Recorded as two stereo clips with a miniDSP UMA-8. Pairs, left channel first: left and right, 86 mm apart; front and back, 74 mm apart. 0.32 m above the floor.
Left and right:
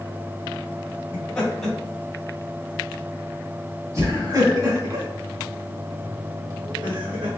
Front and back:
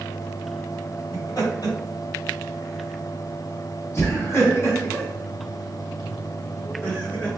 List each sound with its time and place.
1.1 s laughter: 25° left, 1.7 m; by 7.3 s 80° right, 3 m